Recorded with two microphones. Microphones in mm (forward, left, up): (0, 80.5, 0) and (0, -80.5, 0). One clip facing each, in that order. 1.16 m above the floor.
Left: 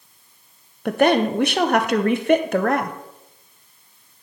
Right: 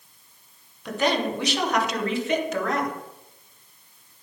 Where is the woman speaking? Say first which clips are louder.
Left 7 dB; 55° left (ahead or behind), 0.8 m.